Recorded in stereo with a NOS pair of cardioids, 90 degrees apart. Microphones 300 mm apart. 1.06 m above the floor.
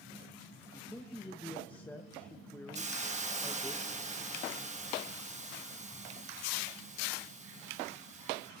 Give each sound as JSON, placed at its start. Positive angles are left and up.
{"t": 0.7, "sound": "a man speaking", "azimuth_deg": 5, "distance_m": 0.6}
{"t": 2.8, "sound": "a hiss", "azimuth_deg": -25, "distance_m": 1.2}